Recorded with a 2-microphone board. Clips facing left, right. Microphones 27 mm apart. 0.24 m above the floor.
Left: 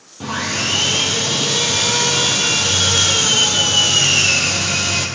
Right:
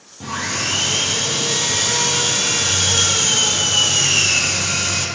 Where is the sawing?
25° left (ahead or behind), 2 m.